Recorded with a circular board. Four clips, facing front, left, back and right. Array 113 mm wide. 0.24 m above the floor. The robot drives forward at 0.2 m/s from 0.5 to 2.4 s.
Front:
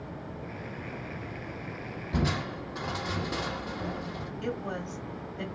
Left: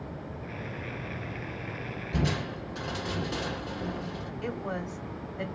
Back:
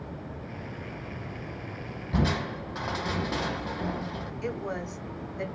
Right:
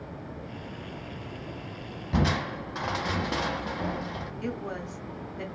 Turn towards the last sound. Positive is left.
turn(degrees=175)